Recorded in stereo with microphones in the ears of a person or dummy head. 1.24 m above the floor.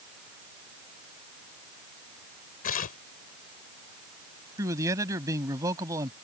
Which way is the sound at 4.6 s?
20° right (ahead or behind).